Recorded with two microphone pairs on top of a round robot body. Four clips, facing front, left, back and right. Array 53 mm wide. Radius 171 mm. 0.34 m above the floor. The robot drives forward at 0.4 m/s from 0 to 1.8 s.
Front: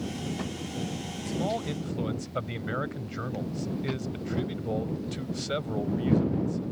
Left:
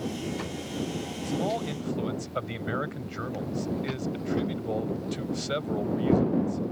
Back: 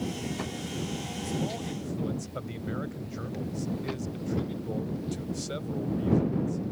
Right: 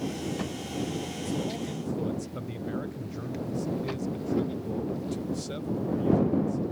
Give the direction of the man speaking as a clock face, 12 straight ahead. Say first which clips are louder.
Left 5 dB, front 4 dB; 10 o'clock.